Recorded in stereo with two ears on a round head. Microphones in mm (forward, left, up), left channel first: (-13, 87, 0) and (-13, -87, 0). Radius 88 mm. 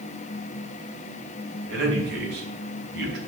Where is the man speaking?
65° right (ahead or behind), 4 m.